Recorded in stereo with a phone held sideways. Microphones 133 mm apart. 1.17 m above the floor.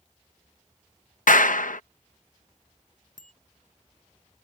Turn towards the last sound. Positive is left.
turn(degrees=70)  # may be behind; listen again after turning